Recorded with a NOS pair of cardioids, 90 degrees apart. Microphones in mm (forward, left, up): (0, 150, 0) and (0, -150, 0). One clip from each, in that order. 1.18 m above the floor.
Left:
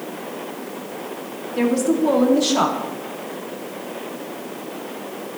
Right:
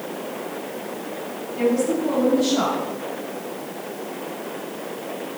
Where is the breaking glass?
No breaking glass in this recording.